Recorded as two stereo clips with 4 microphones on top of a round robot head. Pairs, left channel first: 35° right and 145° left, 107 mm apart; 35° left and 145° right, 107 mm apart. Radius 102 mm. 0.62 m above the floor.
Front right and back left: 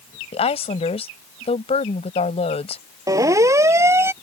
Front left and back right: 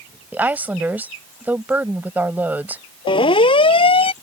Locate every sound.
0.3 s a woman speaking: 70° right
3.1 s a siren: 80° left; by 4.1 s 75° left